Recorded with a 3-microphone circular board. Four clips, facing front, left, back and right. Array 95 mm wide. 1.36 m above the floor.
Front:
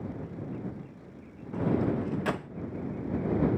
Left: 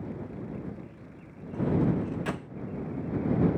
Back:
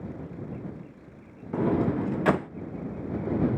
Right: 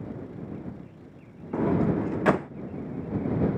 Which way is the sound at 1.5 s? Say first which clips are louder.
Right 3 dB, back 3 dB; 120° right.